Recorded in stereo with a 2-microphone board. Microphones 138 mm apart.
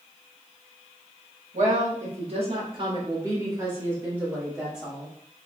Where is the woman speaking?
60° right (ahead or behind), 1.2 m; by 5.2 s centre (ahead or behind), 1.9 m.